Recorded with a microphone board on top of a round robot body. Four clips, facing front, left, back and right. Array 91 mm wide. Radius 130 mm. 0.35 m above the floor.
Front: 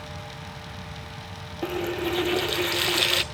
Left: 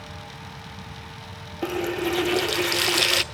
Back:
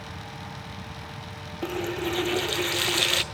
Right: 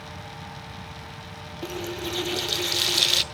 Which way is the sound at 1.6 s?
85° left.